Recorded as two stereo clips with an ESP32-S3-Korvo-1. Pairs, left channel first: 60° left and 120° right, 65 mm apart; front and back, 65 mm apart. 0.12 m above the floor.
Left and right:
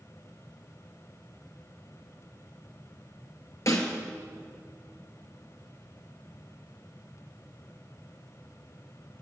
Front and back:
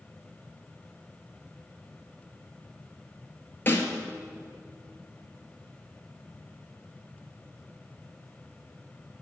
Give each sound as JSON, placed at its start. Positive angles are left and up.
{"t": 3.7, "sound": "a snare drum", "azimuth_deg": 50, "distance_m": 1.8}